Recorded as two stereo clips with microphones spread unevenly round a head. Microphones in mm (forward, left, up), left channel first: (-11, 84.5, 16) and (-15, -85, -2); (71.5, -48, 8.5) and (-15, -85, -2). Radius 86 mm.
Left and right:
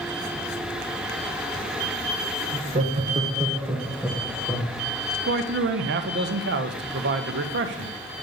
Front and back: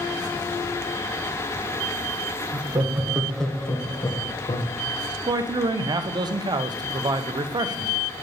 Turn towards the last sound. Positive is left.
turn(degrees=-110)